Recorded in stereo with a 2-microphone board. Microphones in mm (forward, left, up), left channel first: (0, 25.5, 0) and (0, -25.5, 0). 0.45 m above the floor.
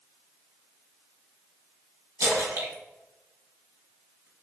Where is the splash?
80° right, 2 m.